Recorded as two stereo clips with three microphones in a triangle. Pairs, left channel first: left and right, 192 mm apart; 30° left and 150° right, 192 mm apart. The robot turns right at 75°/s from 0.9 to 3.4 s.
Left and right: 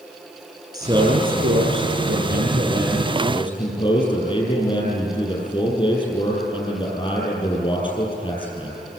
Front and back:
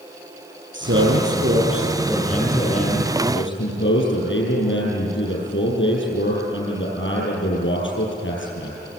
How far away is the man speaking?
About 8 m.